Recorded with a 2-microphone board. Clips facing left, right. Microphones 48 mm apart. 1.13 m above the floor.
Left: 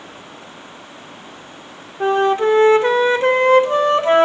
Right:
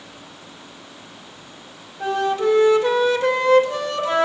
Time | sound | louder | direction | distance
2.0 | a flute | left 5 dB | 35° left (ahead or behind) | 0.6 m